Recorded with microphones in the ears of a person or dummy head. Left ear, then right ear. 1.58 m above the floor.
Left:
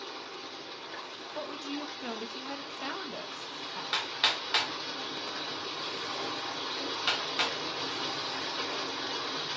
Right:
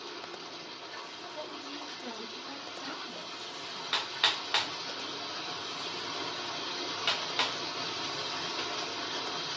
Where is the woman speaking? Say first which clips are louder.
Left 5 dB; 65° left (ahead or behind), 0.6 m.